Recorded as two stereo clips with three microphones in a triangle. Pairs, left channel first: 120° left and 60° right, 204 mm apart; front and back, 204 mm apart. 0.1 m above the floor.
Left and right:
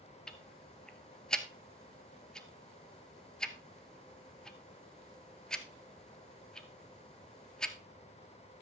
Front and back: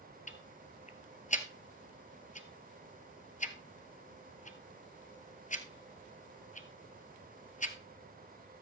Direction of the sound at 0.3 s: 35° left.